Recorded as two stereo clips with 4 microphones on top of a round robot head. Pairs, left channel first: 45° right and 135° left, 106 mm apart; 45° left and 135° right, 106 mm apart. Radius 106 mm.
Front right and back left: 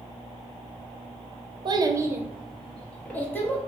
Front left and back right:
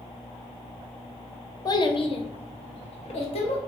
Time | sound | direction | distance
1.6 | a child speaking | 95° left | 0.5 m